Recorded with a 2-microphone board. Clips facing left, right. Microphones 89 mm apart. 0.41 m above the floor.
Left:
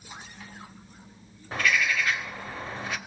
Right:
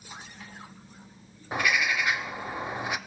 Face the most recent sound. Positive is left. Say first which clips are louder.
# left 1 dB
turn(degrees=-15)  # may be behind; listen again after turning